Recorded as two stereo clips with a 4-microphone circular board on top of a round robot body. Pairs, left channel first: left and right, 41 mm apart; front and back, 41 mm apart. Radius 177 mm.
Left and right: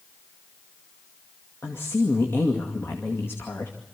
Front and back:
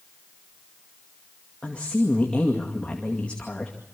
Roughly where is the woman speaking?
Ahead left.